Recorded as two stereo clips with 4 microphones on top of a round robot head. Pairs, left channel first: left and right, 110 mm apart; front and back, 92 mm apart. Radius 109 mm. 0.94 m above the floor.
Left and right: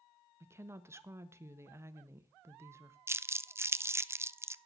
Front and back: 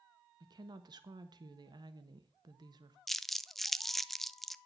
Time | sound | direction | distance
0.4 | a woman speaking | 150° right | 1.3 m
3.1 | crumpling | 85° right | 0.6 m